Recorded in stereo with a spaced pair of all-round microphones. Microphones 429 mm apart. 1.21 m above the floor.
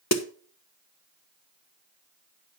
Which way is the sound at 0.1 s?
35° left (ahead or behind).